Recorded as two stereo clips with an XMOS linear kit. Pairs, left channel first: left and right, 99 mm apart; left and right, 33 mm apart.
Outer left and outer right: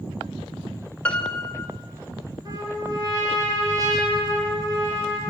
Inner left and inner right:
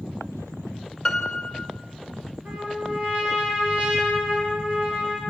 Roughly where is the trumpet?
Right.